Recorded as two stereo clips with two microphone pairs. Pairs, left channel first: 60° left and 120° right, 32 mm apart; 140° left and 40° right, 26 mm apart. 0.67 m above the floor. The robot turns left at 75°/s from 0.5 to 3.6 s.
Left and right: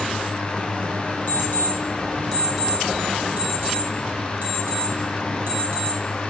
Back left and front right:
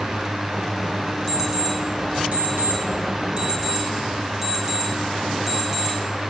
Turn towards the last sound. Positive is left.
turn(degrees=-120)